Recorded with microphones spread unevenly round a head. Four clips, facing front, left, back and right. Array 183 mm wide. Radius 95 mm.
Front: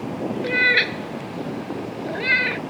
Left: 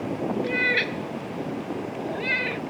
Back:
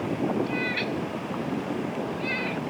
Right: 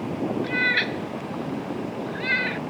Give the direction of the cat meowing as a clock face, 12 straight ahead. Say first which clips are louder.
Even, front 6 dB; 11 o'clock.